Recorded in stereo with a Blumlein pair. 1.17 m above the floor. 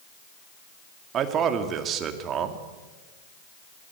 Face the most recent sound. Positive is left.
turn(degrees=-30)